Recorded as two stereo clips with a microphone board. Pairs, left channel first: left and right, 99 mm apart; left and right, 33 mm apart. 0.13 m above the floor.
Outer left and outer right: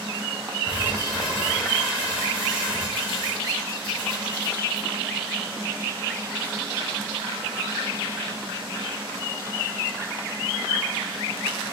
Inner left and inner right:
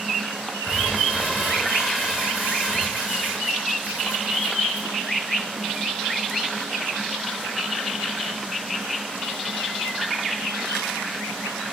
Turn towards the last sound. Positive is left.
turn(degrees=60)  # may be behind; listen again after turning